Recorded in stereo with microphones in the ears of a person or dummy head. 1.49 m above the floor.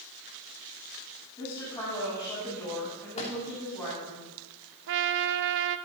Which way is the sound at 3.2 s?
30° left (ahead or behind).